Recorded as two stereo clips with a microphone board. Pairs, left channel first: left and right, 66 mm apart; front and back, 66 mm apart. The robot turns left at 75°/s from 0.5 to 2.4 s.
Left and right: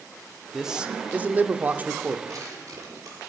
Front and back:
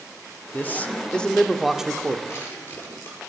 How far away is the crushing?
About 5 m.